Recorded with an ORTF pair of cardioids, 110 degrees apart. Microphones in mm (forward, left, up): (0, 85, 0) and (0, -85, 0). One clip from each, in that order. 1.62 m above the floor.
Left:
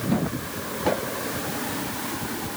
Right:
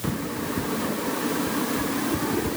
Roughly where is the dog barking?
I don't hear a dog barking.